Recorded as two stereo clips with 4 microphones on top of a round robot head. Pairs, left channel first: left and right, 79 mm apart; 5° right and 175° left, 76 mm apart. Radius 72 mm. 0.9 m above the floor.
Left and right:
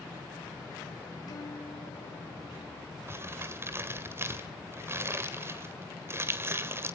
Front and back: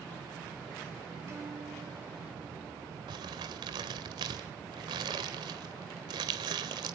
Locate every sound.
1.3 s a guitar: 120° left, 6 m
3.1 s crumpling: 150° right, 1.9 m